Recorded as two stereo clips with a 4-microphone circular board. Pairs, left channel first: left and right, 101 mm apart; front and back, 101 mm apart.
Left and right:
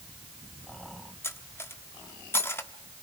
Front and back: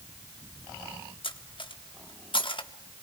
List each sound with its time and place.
1.2 s cutlery clinking: 25° left, 1.2 m